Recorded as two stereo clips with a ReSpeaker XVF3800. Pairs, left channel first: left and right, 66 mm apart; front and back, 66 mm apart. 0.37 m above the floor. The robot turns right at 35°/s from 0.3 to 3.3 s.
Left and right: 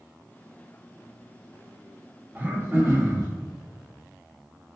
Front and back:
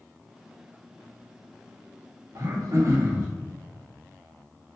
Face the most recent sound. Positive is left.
turn(degrees=-125)